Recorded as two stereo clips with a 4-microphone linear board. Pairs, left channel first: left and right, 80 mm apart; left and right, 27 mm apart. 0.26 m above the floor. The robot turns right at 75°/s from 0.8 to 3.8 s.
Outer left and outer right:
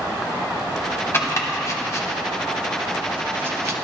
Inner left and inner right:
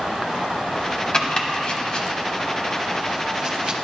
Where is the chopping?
35° left (ahead or behind), 1.4 m; by 3.8 s 40° right (ahead or behind), 1.4 m.